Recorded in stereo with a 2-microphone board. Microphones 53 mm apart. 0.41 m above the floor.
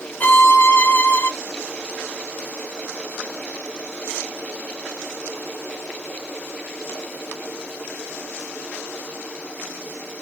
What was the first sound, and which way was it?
A violin, 40° left (ahead or behind).